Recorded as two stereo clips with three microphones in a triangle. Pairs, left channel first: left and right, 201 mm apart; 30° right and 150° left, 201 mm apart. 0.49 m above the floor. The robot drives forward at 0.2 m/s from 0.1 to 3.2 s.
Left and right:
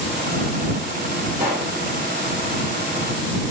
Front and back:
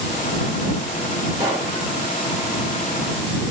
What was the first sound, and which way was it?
A pop, 135° right.